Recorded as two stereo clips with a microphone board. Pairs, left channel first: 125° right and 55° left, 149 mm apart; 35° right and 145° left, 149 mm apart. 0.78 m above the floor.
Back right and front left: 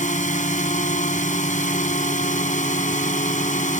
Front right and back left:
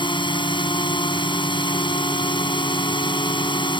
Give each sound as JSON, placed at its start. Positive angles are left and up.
{"t": 0.0, "sound": "a drone", "azimuth_deg": -90}